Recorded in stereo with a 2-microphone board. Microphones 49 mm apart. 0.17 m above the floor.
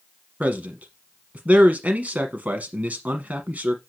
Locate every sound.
0.4 s a man speaking: 35° right (ahead or behind), 1.2 m